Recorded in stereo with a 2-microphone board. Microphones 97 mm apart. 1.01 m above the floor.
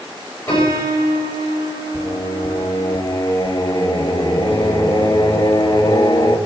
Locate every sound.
0.5 s a piano: 20° left (ahead or behind), 6 m
1.9 s singing: 45° left (ahead or behind), 1.3 m